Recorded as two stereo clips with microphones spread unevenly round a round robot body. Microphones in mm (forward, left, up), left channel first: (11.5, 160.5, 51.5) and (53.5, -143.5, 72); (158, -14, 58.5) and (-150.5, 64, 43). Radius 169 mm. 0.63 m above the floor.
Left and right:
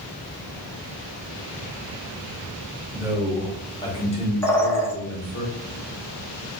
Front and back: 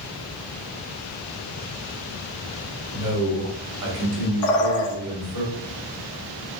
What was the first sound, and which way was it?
A man speaking, 160° right.